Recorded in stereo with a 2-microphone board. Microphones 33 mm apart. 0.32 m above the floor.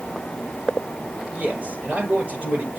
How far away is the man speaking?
About 5.5 m.